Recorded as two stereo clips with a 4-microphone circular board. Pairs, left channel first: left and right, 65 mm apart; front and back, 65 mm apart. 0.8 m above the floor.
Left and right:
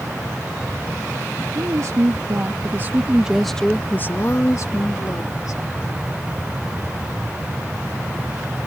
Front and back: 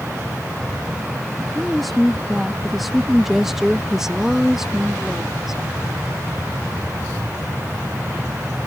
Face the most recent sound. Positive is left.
turn(degrees=95)